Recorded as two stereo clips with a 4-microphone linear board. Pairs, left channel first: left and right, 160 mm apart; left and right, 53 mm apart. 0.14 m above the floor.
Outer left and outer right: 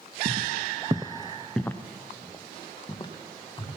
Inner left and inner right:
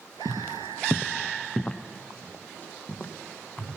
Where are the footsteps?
75° right (ahead or behind), 0.5 m; by 3.8 s 30° left (ahead or behind), 2 m.